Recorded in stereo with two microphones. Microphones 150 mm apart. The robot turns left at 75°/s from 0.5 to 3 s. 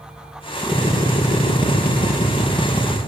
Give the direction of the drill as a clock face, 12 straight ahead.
6 o'clock.